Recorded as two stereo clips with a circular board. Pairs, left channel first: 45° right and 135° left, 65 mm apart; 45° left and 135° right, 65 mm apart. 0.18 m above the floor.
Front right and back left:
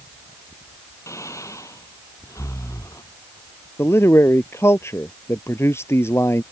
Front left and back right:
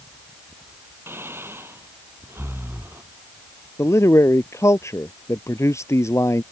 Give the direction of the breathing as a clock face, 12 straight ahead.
3 o'clock.